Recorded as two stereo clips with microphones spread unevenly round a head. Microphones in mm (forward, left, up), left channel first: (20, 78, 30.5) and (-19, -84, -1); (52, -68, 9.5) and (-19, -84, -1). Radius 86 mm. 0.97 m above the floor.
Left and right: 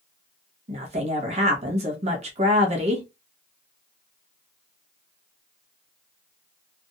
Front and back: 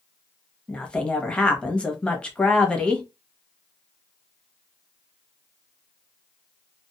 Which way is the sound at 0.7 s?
65° right.